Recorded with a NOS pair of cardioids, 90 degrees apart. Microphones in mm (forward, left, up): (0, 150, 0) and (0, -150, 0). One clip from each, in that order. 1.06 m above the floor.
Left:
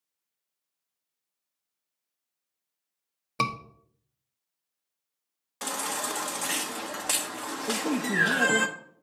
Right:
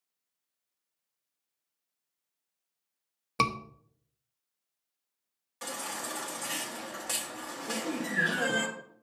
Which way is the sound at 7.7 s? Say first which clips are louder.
Left 5 dB; 55° left.